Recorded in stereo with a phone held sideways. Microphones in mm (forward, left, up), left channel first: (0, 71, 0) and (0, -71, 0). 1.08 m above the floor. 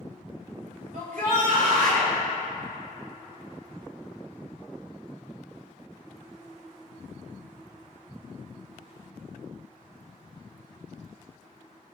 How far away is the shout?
About 3.5 m.